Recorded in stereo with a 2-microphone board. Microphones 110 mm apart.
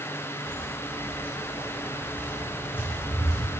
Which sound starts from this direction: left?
Footsteps, at 0.4 s.